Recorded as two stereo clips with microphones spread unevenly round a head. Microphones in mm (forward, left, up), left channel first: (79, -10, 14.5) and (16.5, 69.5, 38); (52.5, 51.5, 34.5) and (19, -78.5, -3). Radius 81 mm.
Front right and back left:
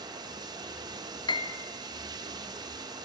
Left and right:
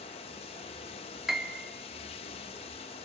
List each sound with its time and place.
0.0 s running water: 105° left, 1.0 m
1.3 s a piano: 10° right, 1.9 m